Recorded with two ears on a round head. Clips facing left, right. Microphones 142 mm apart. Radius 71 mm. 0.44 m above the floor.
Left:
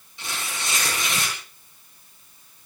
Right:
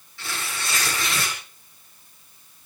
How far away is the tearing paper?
About 7.5 m.